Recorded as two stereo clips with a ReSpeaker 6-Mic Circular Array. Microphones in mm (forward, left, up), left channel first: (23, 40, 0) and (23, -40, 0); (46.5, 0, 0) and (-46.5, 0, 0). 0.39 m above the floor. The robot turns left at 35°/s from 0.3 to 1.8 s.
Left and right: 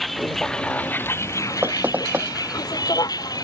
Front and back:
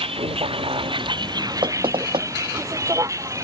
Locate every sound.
0.0 s a vehicle: straight behind; by 3.4 s 125° left
1.6 s knocking: 155° right; by 2.3 s 160° right